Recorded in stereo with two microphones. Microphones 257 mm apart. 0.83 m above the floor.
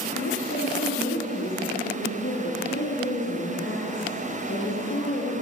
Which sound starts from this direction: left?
A woman speaking, at 0.1 s.